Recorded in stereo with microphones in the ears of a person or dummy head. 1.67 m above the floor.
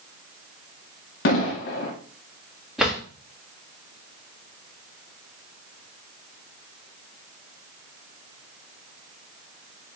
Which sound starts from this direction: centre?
A drawer, at 2.8 s.